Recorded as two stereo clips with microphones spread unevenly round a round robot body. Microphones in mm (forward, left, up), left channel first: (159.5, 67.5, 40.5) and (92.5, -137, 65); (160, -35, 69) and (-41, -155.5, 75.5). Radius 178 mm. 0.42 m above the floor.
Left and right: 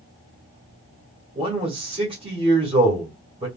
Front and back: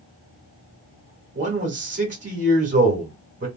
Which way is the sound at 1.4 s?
165° right.